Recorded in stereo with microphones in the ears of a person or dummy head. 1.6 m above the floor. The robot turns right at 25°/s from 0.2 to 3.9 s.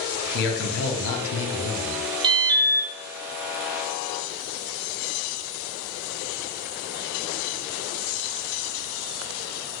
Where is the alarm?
25° right (ahead or behind), 0.7 m; by 2.9 s 10° right (ahead or behind), 0.7 m.